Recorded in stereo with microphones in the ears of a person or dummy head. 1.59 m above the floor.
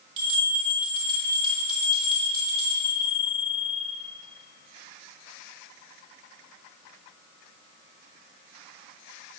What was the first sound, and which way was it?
A bell, 30° right (ahead or behind).